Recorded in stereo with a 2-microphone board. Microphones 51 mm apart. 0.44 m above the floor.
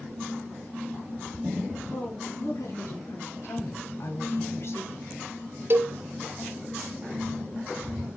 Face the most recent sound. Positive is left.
turn(degrees=-45)  # may be behind; listen again after turning